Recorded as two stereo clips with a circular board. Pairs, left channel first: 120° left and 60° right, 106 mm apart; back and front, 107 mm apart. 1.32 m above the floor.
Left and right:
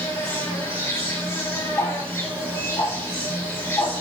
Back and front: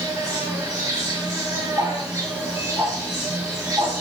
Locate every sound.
0.0 s an insect: 55° left, 6.5 m
1.8 s ticking: 50° left, 6.5 m